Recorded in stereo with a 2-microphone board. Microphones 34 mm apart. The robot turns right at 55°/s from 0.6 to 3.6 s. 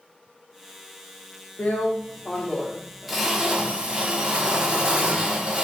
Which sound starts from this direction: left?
A drill, at 1.6 s.